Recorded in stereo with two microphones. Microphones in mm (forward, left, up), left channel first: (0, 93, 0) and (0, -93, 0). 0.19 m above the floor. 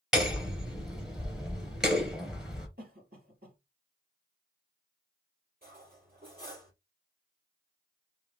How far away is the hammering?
About 2.5 m.